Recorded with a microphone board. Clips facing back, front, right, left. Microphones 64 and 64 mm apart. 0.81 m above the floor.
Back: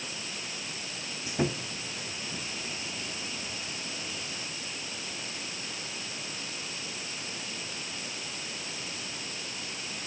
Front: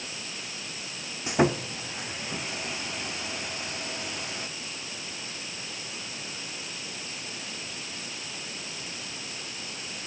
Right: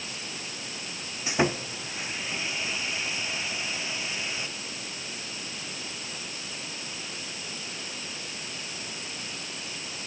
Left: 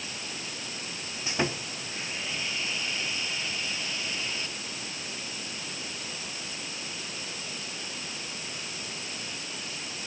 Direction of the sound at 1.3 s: 15° right.